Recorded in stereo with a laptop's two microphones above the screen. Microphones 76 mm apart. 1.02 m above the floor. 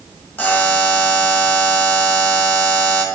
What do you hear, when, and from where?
0.4 s a buzzer: 20° left (ahead or behind), 1.3 m